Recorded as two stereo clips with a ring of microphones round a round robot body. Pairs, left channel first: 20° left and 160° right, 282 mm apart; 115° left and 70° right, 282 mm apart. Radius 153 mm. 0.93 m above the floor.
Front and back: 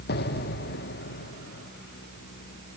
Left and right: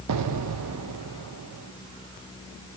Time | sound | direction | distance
0.1 | an explosion | 35° right | 0.9 m